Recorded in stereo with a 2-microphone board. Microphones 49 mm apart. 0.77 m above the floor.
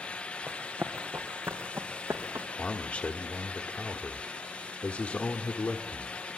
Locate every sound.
0.5 s running footsteps: 60° right (ahead or behind), 2.5 m; by 2.5 s 70° right (ahead or behind), 3.5 m
2.6 s a man speaking: 40° left (ahead or behind), 1.4 m